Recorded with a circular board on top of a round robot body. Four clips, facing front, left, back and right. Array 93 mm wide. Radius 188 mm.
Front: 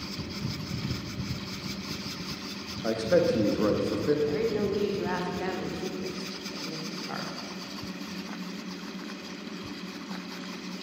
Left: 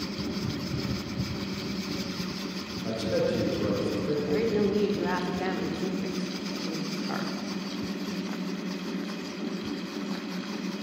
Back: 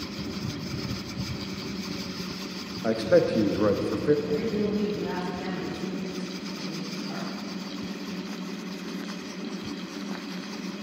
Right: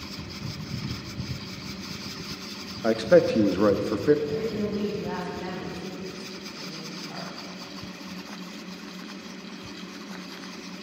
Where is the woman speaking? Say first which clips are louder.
Left 3 dB, even; 60° left, 1.9 m.